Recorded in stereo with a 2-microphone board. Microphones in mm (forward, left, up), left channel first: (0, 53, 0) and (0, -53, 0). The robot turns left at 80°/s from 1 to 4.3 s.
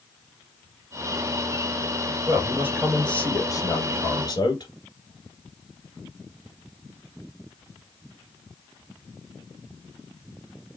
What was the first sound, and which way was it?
A man speaking, 125° right.